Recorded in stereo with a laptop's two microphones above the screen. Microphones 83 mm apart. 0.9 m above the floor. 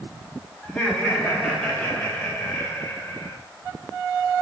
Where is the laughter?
10° left (ahead or behind), 6 m; by 3.4 s 30° left (ahead or behind), 3.5 m.